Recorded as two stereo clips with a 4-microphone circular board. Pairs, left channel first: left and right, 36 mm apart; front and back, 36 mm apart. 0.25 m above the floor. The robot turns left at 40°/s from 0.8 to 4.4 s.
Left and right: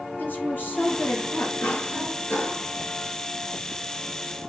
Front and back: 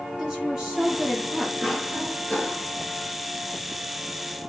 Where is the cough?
100° left, 3.5 m; by 2.7 s 55° left, 3.5 m.